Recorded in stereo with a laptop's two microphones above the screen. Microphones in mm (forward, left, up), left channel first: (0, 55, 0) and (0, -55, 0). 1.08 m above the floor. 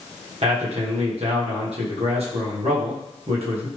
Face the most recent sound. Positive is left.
turn(degrees=-65)  # may be behind; listen again after turning